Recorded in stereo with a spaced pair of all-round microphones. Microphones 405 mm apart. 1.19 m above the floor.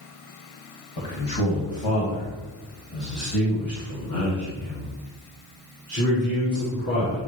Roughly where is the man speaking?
Left.